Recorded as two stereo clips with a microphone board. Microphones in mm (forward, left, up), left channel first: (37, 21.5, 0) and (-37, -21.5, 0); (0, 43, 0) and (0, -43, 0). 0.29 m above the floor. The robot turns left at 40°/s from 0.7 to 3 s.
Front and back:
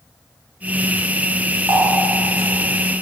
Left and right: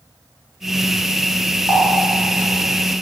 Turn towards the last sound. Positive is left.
turn(degrees=180)